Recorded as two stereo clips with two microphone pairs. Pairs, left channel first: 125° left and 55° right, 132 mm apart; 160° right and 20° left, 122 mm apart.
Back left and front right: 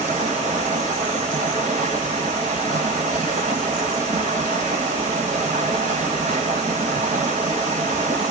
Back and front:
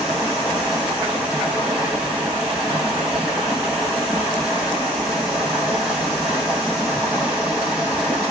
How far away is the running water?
About 1.9 m.